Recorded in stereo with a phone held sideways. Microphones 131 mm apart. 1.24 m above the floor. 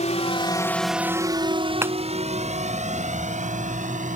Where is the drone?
60° left (ahead or behind); by 4.2 s 65° right (ahead or behind).